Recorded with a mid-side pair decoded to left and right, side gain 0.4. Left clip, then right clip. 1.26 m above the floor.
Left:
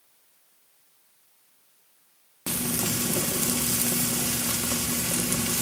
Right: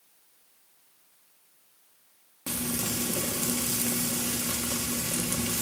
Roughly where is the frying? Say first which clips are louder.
Left 3 dB; ahead left.